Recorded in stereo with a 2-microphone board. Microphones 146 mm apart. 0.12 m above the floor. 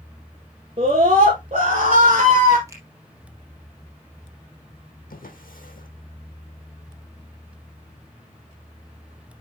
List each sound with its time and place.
0.8 s a scream: 45° right (ahead or behind), 2.5 m; by 2.6 s 50° right (ahead or behind), 1.9 m
2.7 s a finger snap: 20° right (ahead or behind), 4 m
5.1 s a drawer: 75° left (ahead or behind), 2 m